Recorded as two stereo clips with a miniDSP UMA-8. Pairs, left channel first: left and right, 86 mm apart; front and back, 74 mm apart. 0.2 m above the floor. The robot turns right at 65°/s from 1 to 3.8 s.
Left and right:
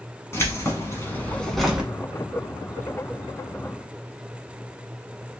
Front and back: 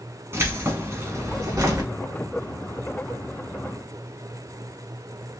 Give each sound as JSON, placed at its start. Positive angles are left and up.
{"t": 0.3, "sound": "keys jangling", "azimuth_deg": 140, "distance_m": 1.1}